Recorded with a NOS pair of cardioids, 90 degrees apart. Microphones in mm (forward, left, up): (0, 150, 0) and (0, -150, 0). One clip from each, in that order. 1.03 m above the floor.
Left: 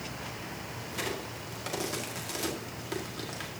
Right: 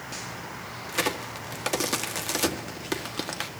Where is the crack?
65° right, 1.7 m.